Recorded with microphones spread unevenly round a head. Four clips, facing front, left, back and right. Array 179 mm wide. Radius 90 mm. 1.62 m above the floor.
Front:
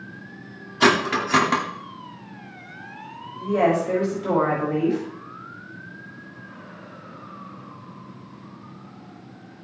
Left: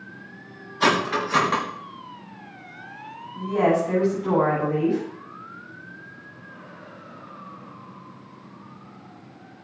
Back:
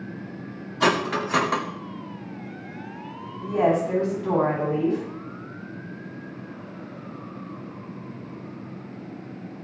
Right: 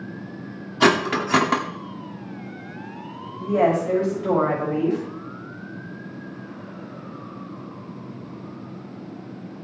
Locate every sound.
0.8 s cutlery clinking: 60° right, 2 m
3.4 s a woman speaking: 55° right, 7.5 m